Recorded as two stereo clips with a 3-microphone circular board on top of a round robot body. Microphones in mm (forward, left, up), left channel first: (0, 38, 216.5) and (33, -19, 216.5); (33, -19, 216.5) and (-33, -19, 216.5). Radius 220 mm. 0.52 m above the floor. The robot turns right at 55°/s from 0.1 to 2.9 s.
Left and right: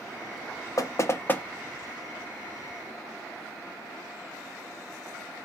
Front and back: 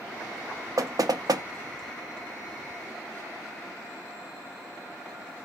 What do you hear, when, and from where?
0.8 s knocking: 150° left, 0.5 m; by 1.4 s 175° right, 0.5 m